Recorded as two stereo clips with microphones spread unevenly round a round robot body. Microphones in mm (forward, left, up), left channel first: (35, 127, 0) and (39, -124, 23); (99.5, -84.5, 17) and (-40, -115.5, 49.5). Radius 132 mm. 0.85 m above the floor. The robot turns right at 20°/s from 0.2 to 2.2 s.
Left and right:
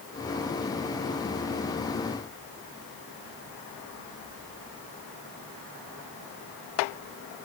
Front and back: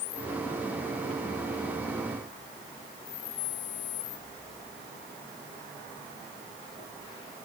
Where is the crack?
I don't hear a crack.